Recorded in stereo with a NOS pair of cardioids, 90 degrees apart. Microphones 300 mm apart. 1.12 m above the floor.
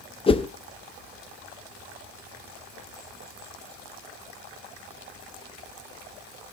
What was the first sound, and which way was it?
A whoosh, 20° left.